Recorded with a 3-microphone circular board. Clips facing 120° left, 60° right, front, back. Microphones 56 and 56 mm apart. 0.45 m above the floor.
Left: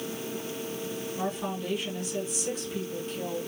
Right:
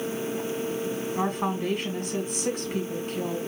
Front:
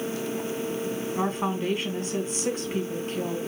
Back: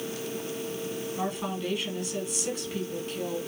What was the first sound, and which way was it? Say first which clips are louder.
A woman speaking: right 5 dB, front 5 dB; 35° right.